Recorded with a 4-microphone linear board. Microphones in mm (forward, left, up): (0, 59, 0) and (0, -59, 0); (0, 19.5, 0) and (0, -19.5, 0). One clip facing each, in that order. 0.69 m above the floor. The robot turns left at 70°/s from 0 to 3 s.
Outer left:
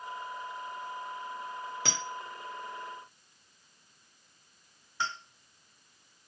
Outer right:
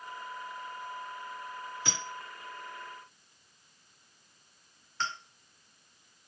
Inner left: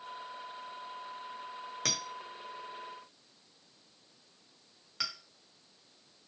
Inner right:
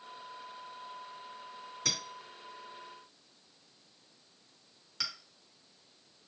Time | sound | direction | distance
1.9 | a clink | 85° left | 1.1 m